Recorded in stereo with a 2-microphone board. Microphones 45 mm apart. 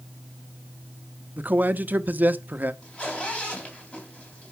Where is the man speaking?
40° right (ahead or behind), 0.7 m.